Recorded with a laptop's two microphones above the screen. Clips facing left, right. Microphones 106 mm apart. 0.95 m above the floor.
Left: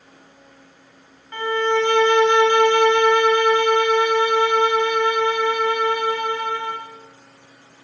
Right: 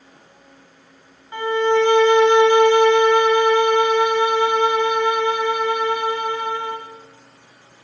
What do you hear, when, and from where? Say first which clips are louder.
1.3 s a violin: right 3 dB; 20° right (ahead or behind), 0.7 m